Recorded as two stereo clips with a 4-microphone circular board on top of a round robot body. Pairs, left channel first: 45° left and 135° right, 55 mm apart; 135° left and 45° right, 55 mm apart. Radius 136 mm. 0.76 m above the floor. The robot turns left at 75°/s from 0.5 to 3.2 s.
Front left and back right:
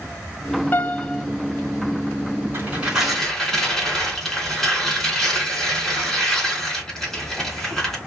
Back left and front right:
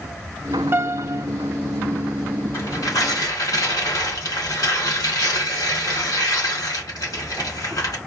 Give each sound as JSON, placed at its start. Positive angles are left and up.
{"t": 0.7, "sound": "a piano", "azimuth_deg": -10, "distance_m": 0.7}
{"t": 2.5, "sound": "tearing paper", "azimuth_deg": 180, "distance_m": 3.0}